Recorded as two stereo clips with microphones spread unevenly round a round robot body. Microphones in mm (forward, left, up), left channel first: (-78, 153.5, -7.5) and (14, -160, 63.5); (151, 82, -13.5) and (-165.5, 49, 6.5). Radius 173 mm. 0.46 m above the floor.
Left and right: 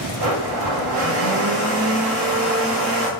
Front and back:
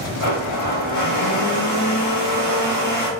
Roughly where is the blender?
Ahead right.